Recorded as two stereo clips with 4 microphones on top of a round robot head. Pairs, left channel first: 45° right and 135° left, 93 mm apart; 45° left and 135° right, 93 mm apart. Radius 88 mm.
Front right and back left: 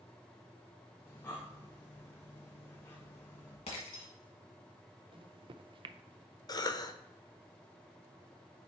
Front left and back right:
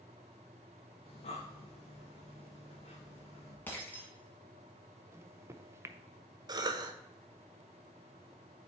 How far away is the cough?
About 1.1 m.